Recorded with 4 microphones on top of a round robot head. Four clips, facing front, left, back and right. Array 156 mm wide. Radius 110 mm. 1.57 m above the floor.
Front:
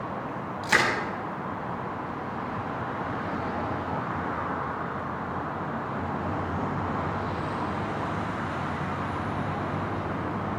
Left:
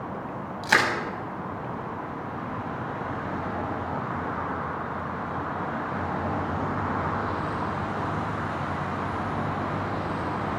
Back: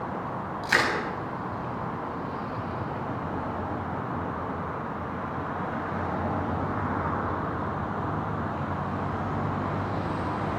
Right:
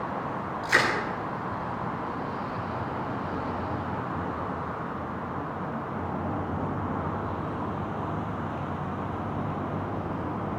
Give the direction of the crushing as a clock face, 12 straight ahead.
9 o'clock.